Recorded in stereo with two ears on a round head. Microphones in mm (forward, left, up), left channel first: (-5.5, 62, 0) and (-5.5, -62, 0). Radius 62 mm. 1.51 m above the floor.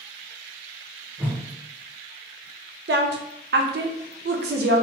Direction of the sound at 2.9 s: 80° right.